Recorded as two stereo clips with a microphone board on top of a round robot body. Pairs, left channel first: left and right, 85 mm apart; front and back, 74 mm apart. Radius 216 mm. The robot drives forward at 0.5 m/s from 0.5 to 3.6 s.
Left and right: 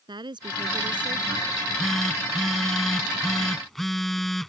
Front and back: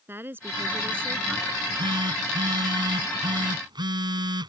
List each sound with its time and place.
0.1 s a woman speaking: 120° right
1.5 s a phone buzzing: 175° left